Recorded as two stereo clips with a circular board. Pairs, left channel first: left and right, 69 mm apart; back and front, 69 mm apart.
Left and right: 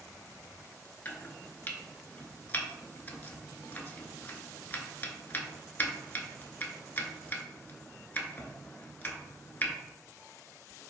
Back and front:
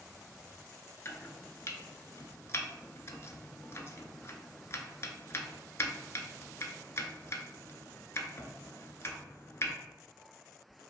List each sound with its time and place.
1.1 s chopping: 145° left, 0.5 m